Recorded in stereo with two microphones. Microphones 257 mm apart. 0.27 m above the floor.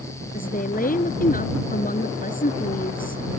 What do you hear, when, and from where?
0.3 s a woman speaking: 35° left (ahead or behind)